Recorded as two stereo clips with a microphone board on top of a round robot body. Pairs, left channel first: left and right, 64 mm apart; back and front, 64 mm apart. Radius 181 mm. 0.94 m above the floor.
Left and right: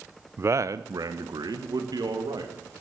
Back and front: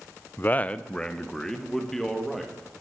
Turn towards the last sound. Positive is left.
turn(degrees=-95)